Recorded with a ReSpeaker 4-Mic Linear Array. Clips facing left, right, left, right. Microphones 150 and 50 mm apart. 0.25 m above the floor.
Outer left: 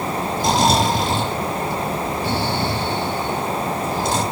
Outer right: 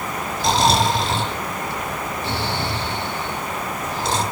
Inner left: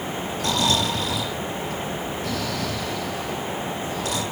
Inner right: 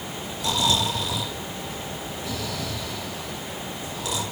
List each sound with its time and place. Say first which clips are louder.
0.4 s snoring: even, inner left 1 dB; 55° left (ahead or behind), 4 m